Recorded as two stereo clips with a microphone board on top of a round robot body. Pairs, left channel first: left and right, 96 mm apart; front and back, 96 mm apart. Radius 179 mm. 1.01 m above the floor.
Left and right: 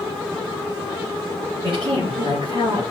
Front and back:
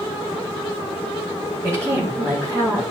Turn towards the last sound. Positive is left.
turn(degrees=-125)